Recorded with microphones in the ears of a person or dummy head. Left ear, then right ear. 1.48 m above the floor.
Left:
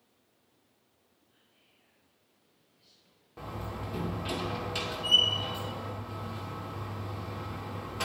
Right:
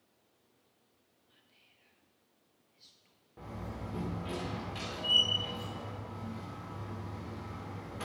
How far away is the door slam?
About 2.5 m.